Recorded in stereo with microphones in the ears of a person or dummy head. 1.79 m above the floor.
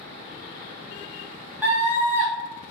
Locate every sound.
1.6 s a scream: 5° right (ahead or behind), 1.1 m